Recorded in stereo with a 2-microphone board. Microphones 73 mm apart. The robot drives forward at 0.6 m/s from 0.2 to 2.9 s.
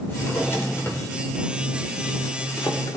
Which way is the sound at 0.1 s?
30° left (ahead or behind).